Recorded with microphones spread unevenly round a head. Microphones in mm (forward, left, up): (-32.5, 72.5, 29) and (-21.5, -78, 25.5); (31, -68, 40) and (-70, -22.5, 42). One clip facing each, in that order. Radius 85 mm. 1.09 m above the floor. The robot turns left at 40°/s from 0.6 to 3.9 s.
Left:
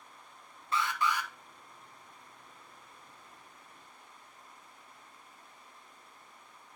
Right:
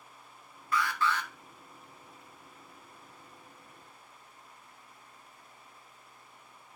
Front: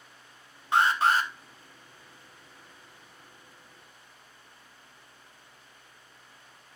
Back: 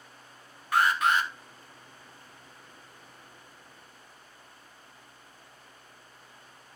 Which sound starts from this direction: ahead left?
An alarm, at 0.7 s.